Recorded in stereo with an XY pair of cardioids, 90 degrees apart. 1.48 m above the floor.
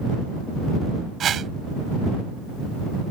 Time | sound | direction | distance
1.2 | a whoosh | 65° right | ?